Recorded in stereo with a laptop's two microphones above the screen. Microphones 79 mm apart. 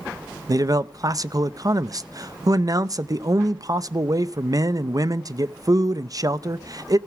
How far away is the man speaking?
About 0.6 m.